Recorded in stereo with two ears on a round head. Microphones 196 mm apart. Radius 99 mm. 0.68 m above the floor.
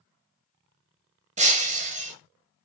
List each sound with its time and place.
1.4 s breaking glass: 35° right (ahead or behind), 1.8 m